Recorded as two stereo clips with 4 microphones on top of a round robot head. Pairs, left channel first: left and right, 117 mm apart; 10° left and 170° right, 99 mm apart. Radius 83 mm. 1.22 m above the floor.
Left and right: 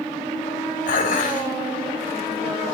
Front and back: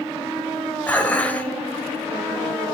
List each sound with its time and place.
0.9 s dishes clattering: 85° left, 4.5 m